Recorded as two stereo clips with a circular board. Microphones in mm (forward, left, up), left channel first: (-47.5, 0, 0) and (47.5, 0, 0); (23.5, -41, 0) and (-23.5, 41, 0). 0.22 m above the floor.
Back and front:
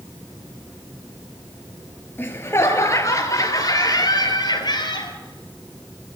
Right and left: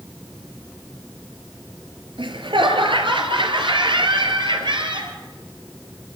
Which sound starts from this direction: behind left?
Laughter, at 2.2 s.